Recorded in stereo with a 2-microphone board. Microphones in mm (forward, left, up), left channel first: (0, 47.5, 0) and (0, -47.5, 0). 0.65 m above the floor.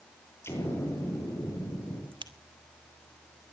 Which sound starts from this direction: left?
An explosion, at 0.4 s.